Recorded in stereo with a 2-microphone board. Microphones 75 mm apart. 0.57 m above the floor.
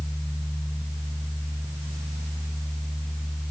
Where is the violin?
No violin in this recording.